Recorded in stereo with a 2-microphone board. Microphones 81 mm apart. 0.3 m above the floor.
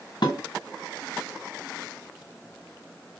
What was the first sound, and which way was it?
Dishes clattering, 65° left (ahead or behind).